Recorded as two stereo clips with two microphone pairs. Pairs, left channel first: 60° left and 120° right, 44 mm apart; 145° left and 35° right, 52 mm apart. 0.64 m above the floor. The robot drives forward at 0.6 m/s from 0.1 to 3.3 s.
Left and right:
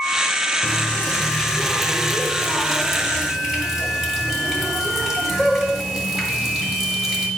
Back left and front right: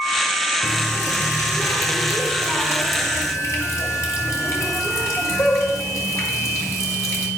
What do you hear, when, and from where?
0.6 s a running tap: 125° left, 1.1 m; by 7.3 s 160° left, 2.5 m